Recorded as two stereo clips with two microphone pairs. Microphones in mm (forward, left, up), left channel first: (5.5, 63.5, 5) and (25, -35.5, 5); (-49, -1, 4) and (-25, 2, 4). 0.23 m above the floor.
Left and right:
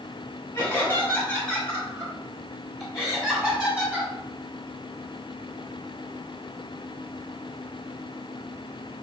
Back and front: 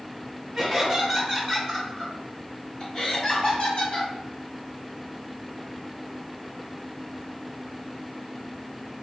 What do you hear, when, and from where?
0.6 s laughter: 90° left, 1.5 m; by 4.1 s 155° right, 2 m